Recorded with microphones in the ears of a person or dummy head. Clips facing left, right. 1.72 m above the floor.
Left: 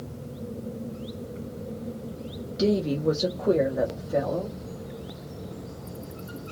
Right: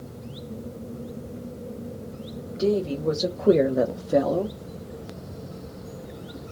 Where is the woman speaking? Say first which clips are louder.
Even; 35° left (ahead or behind), 0.7 m; by 4.6 s 75° right (ahead or behind), 0.9 m.